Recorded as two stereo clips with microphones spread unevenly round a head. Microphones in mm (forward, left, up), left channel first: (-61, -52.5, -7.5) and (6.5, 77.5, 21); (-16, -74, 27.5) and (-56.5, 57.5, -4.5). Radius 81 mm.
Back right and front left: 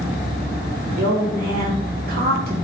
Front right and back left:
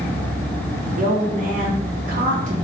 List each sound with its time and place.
1.0 s a woman speaking: 85° left, 1.9 m